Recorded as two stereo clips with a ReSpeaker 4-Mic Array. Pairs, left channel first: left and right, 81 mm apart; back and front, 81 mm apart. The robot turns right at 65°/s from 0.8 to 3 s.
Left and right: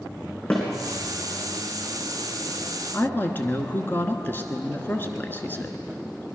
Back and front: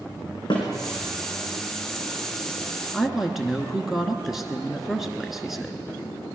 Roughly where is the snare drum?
Behind.